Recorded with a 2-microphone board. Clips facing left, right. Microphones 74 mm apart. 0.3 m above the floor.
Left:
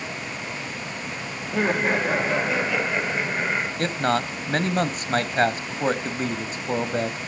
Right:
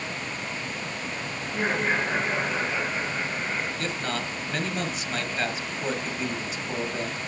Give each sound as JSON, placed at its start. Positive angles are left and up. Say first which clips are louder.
{"t": 1.4, "sound": "laughter", "louder": "left 4 dB", "side_deg": 75, "distance_m": 7.5}
{"t": 3.8, "sound": "a man speaking", "louder": "left 7 dB", "side_deg": 50, "distance_m": 1.4}